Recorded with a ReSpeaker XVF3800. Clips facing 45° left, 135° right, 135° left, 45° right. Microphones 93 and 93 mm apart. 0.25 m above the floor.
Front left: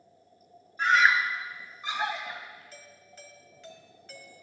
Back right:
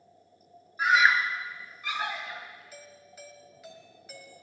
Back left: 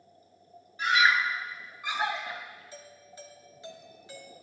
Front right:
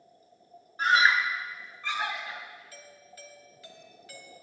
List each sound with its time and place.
0.8 s a scream: 55° right, 1.5 m; by 2.6 s 95° left, 2.0 m
2.7 s a doorbell: 155° left, 1.4 m